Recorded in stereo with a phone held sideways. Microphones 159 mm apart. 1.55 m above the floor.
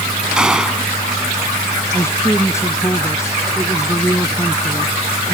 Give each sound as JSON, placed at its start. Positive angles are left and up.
{"t": 0.4, "sound": "a gunshot", "side_deg": -5}
{"t": 1.9, "sound": "a man speaking", "side_deg": 15}